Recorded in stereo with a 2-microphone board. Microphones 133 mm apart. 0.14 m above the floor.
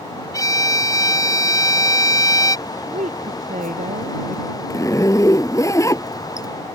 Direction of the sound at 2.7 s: 75° right (ahead or behind).